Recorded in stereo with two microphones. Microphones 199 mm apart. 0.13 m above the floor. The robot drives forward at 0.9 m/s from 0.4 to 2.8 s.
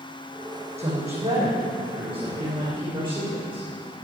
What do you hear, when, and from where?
0.8 s a woman speaking: 35° right (ahead or behind), 6 m; by 3.6 s 25° right (ahead or behind), 7.5 m